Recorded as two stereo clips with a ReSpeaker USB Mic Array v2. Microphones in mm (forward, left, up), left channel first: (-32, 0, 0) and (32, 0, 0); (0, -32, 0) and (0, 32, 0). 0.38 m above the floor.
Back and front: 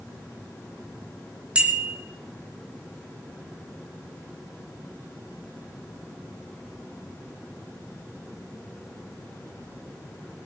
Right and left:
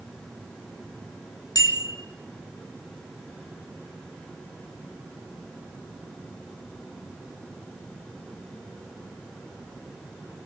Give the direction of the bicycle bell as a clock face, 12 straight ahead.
2 o'clock.